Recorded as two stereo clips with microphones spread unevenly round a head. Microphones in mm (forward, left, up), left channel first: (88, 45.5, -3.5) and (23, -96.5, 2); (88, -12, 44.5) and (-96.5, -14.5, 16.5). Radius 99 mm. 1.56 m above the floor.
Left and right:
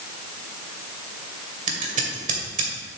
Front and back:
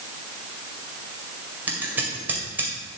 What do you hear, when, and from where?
1.7 s scissors: 95° right, 2 m